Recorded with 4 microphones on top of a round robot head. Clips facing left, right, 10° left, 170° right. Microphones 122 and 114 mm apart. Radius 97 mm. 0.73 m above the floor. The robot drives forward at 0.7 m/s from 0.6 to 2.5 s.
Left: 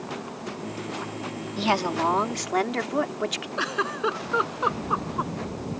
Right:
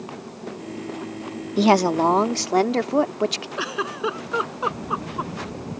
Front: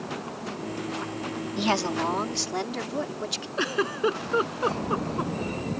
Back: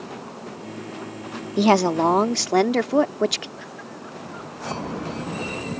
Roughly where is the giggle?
Ahead.